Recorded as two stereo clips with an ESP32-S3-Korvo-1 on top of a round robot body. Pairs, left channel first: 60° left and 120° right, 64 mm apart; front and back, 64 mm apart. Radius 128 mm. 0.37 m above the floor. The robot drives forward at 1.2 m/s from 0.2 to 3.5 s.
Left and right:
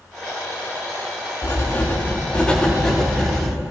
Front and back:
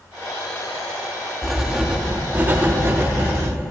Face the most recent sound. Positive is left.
turn(degrees=150)